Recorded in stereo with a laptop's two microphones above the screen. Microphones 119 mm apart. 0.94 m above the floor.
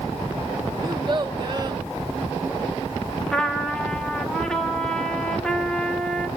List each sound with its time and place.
0.8 s a child speaking: 35° right (ahead or behind), 1.1 m
3.3 s a trumpet: 5° left (ahead or behind), 2 m